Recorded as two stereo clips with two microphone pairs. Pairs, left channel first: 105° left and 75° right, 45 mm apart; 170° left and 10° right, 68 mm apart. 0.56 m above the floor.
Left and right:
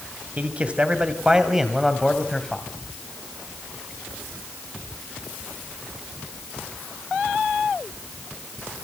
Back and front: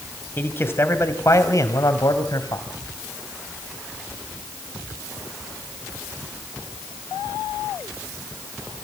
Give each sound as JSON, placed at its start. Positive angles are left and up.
{"t": 0.4, "sound": "a man speaking", "azimuth_deg": -130, "distance_m": 3.5}